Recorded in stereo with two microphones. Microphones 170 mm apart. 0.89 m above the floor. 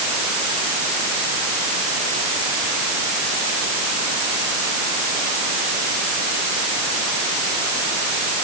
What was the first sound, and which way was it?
Only background noise.